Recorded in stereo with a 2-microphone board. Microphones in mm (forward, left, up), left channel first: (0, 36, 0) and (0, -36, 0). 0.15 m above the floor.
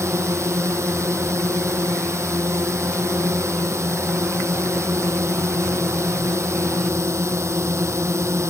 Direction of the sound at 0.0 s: 40° right (ahead or behind).